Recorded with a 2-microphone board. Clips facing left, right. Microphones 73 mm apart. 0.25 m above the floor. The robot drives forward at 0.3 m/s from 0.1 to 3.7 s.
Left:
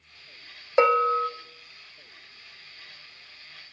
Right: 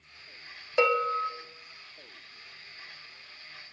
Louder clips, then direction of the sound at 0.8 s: Left 5 dB; 30° left (ahead or behind).